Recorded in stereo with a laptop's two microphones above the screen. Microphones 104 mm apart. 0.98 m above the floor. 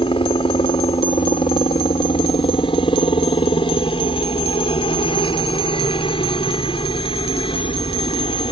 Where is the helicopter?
55° left (ahead or behind).